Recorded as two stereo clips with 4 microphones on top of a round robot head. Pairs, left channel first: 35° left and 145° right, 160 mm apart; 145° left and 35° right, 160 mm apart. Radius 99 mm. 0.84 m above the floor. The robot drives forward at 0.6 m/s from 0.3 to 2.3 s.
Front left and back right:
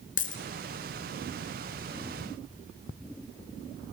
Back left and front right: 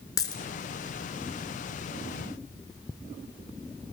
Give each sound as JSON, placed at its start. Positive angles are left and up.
{"t": 0.2, "sound": "a dropped coin", "azimuth_deg": 75, "distance_m": 1.5}